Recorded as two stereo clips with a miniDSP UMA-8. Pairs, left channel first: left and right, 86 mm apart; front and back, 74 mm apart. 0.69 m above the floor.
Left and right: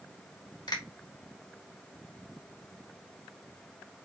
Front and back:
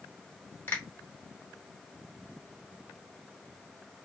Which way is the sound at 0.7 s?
60° left.